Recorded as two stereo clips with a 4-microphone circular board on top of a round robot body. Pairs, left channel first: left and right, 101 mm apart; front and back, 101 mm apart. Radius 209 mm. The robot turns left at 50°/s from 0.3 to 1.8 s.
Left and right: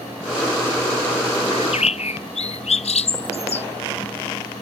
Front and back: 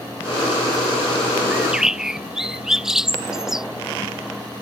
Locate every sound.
1.5 s a bird: 110° left; by 3.7 s 95° left